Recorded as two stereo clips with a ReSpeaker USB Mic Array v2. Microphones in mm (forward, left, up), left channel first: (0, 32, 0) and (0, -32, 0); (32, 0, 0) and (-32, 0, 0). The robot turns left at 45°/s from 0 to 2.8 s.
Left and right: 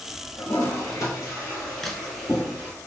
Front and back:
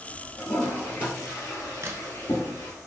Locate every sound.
0.4 s a toilet flushing: 85° left, 2.0 m; by 2.7 s 20° right, 2.0 m
1.8 s a crack: straight behind, 0.5 m; by 2.1 s 170° left, 0.5 m